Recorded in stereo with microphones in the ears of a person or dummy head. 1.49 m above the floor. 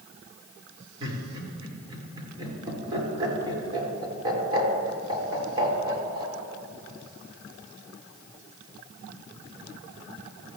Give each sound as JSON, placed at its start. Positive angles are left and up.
{"t": 1.0, "sound": "laughter", "side_deg": -25, "distance_m": 5.5}